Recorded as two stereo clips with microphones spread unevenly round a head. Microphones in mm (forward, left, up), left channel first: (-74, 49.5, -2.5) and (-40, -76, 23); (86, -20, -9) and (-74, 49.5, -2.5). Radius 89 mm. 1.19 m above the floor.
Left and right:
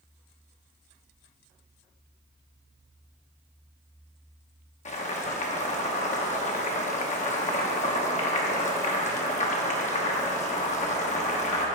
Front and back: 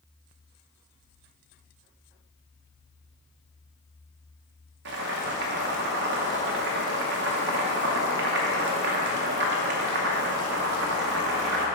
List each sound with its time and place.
4.8 s boiling: 130° left, 1.0 m